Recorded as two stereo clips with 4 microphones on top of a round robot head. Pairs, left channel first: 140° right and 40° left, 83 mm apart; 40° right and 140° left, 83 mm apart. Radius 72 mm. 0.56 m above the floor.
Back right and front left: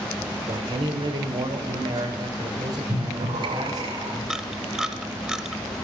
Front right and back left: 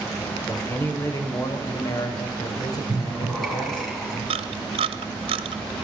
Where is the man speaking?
25° left, 2.5 m; by 3.9 s 5° right, 4 m.